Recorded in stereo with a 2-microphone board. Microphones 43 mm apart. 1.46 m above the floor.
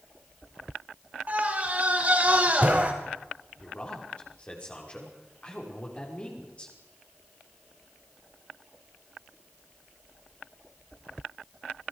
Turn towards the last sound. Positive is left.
turn(degrees=25)  # may be behind; listen again after turning